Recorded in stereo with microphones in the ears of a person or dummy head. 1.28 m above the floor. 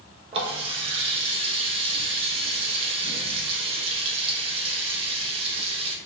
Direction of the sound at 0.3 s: 35° right (ahead or behind).